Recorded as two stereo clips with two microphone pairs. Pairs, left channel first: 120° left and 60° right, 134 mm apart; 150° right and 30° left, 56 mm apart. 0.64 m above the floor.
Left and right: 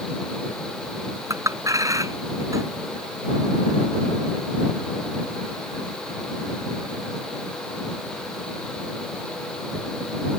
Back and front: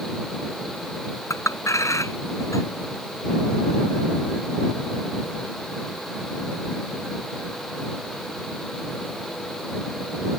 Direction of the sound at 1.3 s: 125° right.